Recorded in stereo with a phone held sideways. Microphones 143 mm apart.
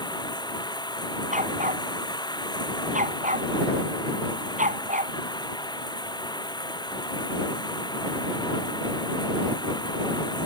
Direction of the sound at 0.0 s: 30° left (ahead or behind).